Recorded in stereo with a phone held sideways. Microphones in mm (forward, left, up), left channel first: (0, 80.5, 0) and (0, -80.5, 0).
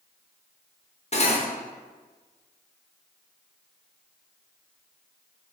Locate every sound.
1.1 s cutlery clinking: 40° left (ahead or behind), 0.6 m